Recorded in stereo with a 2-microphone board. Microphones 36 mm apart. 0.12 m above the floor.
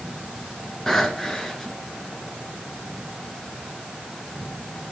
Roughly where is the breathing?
Centre.